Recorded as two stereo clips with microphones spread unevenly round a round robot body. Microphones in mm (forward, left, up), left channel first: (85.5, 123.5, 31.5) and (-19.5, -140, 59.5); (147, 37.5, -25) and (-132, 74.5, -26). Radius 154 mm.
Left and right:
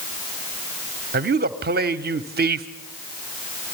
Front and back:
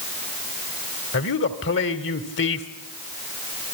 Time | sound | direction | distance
1.1 | a man speaking | 55° right | 1.3 m